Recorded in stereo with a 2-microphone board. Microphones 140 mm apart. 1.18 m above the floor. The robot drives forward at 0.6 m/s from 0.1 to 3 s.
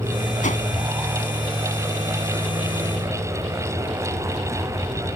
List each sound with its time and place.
0.4 s a whoosh: 60° left (ahead or behind); by 0.7 s 65° left (ahead or behind)